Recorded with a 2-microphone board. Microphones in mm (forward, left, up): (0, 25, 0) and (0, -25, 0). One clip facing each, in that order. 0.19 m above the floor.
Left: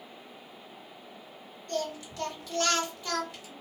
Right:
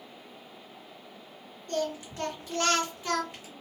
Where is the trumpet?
I don't hear a trumpet.